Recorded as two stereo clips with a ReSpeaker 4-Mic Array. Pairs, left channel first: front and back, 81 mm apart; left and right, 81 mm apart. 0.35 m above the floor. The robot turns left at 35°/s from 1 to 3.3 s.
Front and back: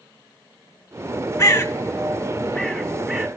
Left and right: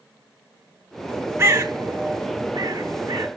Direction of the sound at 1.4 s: 45° right.